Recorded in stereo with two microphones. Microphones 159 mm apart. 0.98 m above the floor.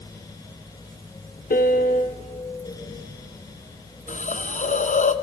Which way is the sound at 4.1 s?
50° left (ahead or behind).